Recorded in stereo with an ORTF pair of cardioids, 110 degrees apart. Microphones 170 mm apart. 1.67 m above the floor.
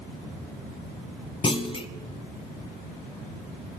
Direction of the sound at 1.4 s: 30° left.